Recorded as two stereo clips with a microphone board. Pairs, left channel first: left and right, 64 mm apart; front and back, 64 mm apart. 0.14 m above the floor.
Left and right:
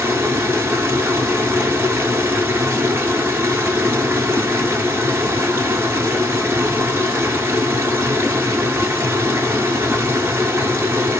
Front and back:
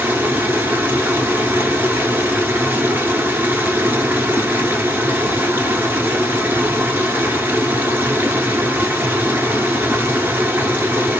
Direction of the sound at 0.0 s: 130° right.